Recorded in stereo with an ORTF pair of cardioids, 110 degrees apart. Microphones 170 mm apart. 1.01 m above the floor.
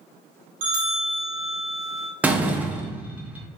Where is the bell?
60° right, 1.7 m.